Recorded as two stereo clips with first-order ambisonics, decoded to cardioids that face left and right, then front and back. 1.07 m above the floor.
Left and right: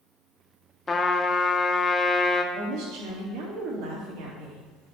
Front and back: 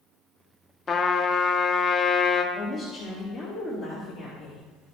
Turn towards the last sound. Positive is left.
turn(degrees=-80)